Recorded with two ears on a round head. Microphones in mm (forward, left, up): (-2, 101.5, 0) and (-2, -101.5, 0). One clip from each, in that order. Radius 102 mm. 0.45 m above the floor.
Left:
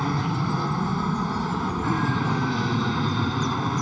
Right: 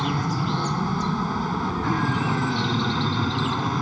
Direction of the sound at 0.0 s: 5° right (ahead or behind).